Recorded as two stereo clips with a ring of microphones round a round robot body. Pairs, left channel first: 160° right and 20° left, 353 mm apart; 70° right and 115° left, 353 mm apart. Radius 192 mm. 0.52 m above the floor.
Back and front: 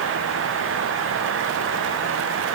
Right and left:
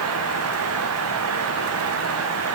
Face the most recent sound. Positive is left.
No sound to turn to.